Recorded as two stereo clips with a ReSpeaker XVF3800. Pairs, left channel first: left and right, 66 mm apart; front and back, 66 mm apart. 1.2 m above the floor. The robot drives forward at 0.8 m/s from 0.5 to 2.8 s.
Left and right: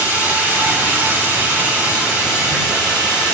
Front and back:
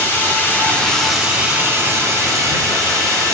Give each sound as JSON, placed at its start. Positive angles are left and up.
{"t": 0.0, "sound": "running water", "azimuth_deg": -40, "distance_m": 1.0}